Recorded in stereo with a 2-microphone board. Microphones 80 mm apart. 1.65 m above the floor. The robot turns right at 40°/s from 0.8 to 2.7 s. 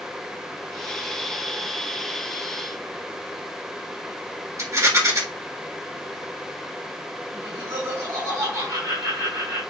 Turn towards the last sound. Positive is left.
turn(degrees=-80)